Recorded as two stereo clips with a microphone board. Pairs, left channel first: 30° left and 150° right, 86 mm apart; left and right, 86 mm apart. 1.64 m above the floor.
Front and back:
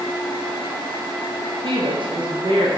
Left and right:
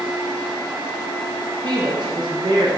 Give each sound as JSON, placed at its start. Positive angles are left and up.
{"t": 1.6, "sound": "a woman speaking", "azimuth_deg": -125, "distance_m": 0.6}